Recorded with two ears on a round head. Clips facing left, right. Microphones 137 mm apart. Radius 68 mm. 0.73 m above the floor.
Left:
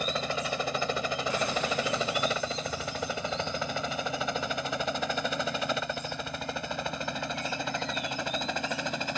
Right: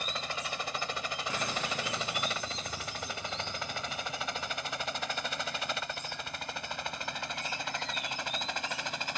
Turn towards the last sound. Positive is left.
turn(degrees=75)  # may be behind; listen again after turning